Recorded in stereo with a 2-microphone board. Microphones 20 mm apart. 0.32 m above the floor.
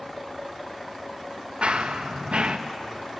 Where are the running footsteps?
50° right (ahead or behind), 1.6 m.